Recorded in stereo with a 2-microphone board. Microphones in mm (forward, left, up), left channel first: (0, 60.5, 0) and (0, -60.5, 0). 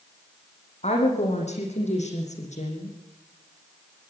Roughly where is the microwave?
I don't hear a microwave.